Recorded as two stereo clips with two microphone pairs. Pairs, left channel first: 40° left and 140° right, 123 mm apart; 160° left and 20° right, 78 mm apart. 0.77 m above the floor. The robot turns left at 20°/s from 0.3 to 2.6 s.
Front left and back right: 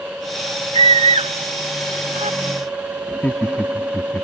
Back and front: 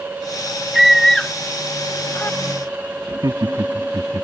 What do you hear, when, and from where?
0.7 s a scream: 105° right; by 2.4 s 135° right
3.1 s laughter: 35° right